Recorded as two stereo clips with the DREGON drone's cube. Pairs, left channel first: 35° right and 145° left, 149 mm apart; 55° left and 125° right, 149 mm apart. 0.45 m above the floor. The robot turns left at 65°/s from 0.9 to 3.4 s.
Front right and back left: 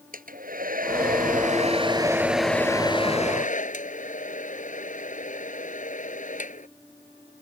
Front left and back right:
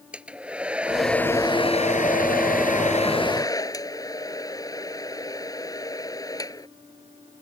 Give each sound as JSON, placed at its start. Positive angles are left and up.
{"t": 0.1, "sound": "a hair dryer", "azimuth_deg": 155}